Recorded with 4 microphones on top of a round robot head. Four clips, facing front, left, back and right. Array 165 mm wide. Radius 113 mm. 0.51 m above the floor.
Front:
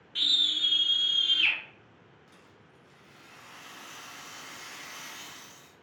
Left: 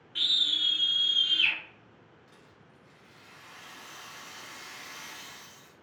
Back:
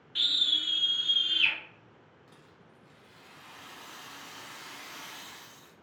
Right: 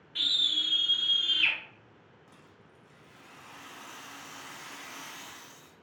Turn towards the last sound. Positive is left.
turn(degrees=-115)